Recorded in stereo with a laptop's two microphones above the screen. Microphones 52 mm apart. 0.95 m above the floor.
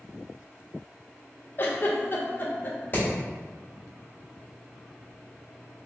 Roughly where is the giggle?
Left.